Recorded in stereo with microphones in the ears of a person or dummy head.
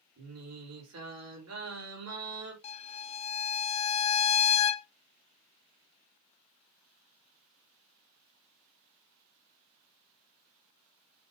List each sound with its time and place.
0.2 s singing: 80° right, 4 m
2.6 s a violin: 35° left (ahead or behind), 0.6 m